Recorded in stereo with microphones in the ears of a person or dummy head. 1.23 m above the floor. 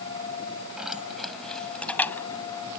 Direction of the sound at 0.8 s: 10° right (ahead or behind).